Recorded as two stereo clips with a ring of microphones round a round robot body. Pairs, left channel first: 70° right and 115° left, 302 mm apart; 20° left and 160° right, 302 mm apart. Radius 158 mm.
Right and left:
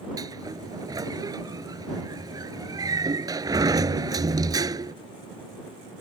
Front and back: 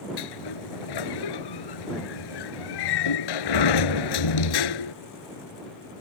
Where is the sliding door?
35° left.